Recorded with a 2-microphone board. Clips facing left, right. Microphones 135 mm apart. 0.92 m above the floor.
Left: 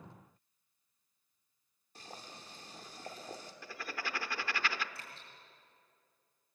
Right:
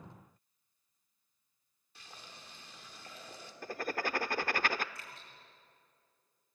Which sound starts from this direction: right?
Writing, at 3.6 s.